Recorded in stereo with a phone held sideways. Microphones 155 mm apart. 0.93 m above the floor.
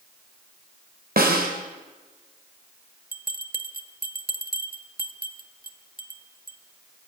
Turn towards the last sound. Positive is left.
turn(degrees=-70)  # may be behind; listen again after turning